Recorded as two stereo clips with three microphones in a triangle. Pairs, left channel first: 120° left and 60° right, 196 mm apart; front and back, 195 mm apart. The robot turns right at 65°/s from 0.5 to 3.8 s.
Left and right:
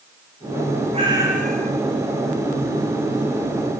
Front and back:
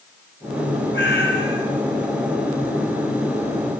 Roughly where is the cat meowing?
Ahead.